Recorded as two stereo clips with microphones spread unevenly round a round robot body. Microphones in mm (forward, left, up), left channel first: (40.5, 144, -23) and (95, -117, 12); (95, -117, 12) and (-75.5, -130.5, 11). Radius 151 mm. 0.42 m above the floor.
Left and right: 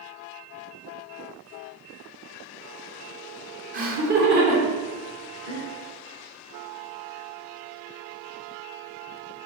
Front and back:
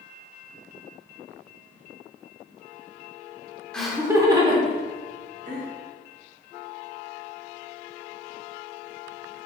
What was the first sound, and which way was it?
Laughter, 75° right.